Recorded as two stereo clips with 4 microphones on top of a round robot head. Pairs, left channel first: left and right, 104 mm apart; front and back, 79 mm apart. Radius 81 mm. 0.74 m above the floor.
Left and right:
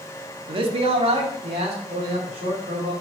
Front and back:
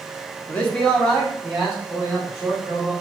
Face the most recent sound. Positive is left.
turn(degrees=-95)